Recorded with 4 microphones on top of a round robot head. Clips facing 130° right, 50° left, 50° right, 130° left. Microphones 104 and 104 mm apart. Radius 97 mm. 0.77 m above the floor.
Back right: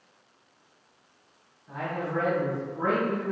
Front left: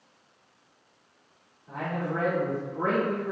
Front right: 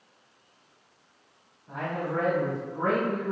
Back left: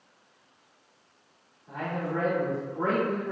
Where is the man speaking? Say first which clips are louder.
Even, front right 1 dB; 100° left, 1.8 m.